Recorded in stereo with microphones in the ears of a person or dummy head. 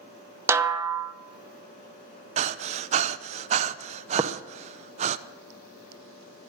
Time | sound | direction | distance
0.5 | a snare drum | 10° right (ahead or behind) | 0.5 m
2.4 | breathing | 35° right (ahead or behind) | 0.5 m
4.2 | tapping | 20° right (ahead or behind) | 0.9 m